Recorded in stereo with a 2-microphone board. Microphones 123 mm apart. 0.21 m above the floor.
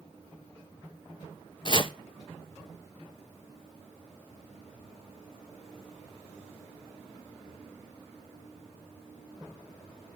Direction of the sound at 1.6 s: 40° left (ahead or behind).